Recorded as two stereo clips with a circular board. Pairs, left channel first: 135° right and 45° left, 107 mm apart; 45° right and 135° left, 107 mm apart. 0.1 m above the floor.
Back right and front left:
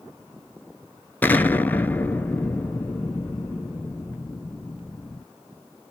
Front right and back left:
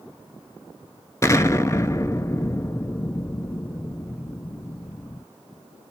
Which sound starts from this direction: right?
An explosion, at 1.2 s.